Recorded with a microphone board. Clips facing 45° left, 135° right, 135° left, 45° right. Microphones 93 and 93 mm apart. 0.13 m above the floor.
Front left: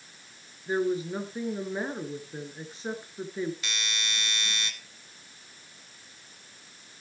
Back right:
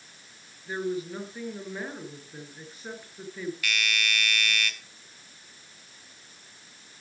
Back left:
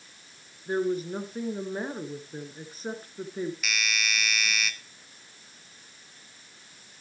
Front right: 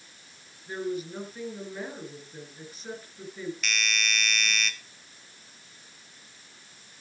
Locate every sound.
0.7 s a woman speaking: 105° left, 2.5 m
3.6 s a doorbell: 55° left, 1.5 m